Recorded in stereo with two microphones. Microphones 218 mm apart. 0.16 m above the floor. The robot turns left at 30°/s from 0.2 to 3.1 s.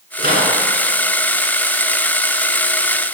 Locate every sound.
0.2 s a microwave: 45° right (ahead or behind), 1.5 m; by 0.6 s 40° right (ahead or behind), 1.5 m